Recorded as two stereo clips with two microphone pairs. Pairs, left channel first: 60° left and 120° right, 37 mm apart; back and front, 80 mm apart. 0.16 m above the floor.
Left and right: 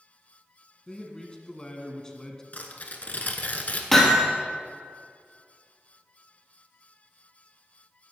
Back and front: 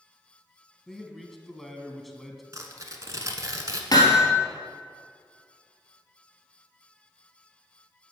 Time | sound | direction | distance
0.9 | a man speaking | 95° left | 1.1 m
2.5 | tearing paper | 30° left | 1.1 m
3.9 | hammering | 140° left | 2 m